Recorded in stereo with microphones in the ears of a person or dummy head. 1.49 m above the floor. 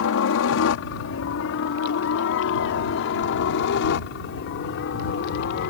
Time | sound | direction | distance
0.0 | a helicopter | 70° left (ahead or behind) | ?